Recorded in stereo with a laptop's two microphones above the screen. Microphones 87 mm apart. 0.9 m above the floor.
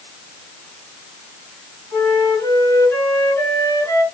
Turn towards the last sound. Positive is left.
turn(degrees=30)  # may be behind; listen again after turning